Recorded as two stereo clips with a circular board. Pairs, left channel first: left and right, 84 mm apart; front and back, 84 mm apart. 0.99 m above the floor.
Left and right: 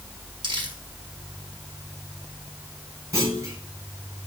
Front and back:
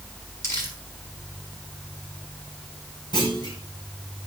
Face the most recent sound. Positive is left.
turn(degrees=-35)